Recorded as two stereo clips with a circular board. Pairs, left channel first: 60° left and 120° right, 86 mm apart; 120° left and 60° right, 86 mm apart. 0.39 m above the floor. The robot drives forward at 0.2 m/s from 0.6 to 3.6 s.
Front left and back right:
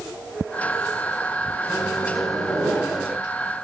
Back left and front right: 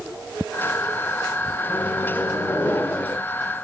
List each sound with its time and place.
1.7 s a microwave: 130° left, 0.7 m; by 3.2 s 160° left, 0.8 m